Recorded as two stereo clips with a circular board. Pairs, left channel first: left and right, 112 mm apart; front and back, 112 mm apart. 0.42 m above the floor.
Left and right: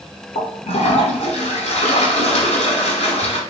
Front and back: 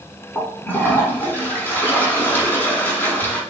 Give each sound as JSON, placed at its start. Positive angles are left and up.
{"t": 0.3, "sound": "a toilet flushing", "azimuth_deg": 75, "distance_m": 1.1}